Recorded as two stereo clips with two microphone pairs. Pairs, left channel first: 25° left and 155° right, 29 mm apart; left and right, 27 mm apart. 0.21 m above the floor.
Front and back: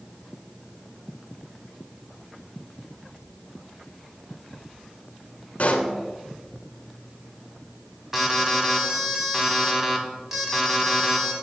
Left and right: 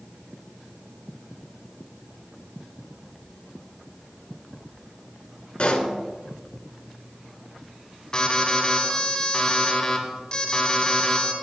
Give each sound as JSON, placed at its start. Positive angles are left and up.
{"t": 5.6, "sound": "a pop", "azimuth_deg": 55, "distance_m": 1.5}
{"t": 8.1, "sound": "an alarm", "azimuth_deg": 130, "distance_m": 1.8}